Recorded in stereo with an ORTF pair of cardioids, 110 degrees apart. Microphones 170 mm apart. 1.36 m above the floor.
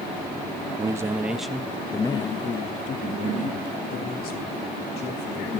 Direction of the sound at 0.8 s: 25° right.